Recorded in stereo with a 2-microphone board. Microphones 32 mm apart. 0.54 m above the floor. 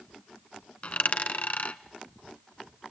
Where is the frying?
I don't hear frying.